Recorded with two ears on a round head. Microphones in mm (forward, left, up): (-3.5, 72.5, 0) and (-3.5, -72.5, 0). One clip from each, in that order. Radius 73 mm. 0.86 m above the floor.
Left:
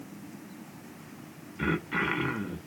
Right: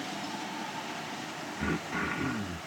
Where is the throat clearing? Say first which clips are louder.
Left 4 dB; 75° left (ahead or behind), 1.1 m.